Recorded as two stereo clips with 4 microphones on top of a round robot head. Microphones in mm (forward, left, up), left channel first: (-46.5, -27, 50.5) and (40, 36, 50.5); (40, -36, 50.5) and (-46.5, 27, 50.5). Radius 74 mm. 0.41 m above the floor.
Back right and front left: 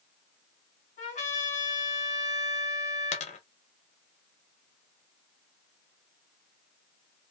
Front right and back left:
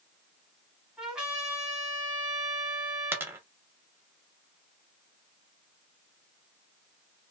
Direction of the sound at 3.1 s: 145° right.